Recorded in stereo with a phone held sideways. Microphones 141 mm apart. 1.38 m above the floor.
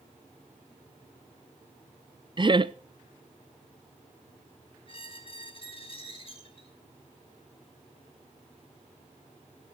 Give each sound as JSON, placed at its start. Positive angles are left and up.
{"t": 2.4, "sound": "laughter", "side_deg": -35, "distance_m": 0.6}
{"t": 4.9, "sound": "a squeak", "side_deg": 40, "distance_m": 2.5}